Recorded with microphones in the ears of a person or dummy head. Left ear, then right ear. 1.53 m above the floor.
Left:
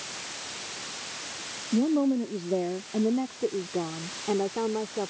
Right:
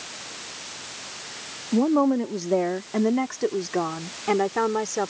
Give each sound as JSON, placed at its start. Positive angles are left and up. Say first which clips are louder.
{"t": 1.7, "sound": "a woman speaking", "louder": "right 5 dB", "side_deg": -45}